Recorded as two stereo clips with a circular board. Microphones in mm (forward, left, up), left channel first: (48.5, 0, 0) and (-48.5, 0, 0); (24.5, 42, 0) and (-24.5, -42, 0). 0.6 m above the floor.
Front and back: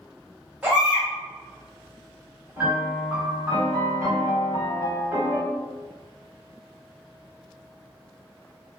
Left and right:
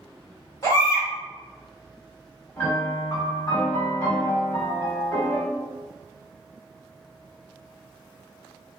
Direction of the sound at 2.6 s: 120° left.